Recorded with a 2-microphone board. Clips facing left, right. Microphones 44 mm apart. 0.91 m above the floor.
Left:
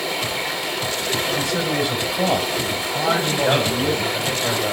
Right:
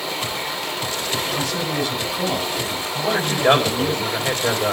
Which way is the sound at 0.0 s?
5° left (ahead or behind).